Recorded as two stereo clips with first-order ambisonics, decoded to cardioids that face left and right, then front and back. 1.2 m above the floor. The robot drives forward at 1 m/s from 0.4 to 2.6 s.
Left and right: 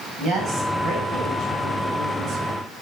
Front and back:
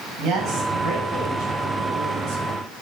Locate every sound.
0.2 s a woman speaking: 135° right, 7.5 m; by 2.6 s 145° right, 9.5 m